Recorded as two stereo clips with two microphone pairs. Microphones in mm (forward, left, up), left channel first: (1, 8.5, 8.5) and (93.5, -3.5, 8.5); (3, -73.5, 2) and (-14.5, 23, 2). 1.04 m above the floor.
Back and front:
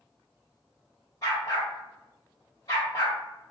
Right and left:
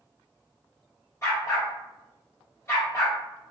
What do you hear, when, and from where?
1.2 s a dog barking: 140° right, 1.4 m